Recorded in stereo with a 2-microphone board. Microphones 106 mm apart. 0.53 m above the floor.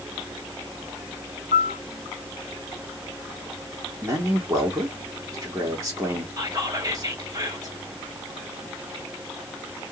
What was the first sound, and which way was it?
A piano, 75° right (ahead or behind).